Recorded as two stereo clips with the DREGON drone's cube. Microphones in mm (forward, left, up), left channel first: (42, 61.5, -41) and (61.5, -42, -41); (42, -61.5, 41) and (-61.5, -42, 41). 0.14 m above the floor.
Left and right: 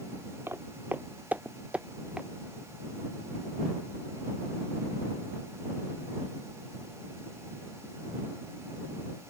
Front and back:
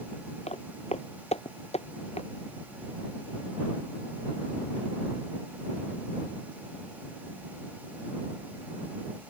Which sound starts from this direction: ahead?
Footsteps, at 0.5 s.